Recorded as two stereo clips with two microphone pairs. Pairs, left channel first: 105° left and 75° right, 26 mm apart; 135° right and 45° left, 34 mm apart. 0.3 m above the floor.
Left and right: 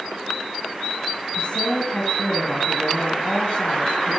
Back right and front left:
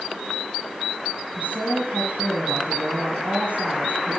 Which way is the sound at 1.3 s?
70° left.